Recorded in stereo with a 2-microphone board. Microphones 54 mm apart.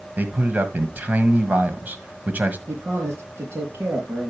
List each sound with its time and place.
0.2 s a man speaking: 30° right (ahead or behind), 1.4 m
2.7 s a man speaking: 45° right (ahead or behind), 4 m